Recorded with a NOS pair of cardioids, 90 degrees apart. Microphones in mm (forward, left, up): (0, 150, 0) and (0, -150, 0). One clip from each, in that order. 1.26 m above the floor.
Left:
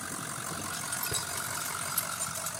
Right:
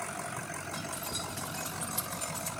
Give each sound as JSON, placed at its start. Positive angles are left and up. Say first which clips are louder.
{"t": 0.7, "sound": "keys jangling", "louder": "left 3 dB", "azimuth_deg": 45, "distance_m": 3.0}